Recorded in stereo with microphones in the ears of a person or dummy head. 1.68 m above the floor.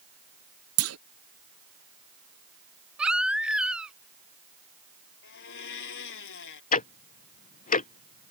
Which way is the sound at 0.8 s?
75° right (ahead or behind).